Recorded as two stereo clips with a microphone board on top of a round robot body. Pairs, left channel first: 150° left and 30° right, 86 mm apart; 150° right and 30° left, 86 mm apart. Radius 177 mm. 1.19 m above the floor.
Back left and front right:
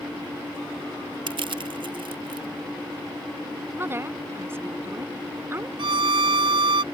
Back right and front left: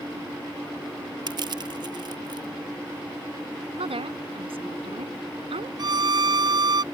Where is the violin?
5° right.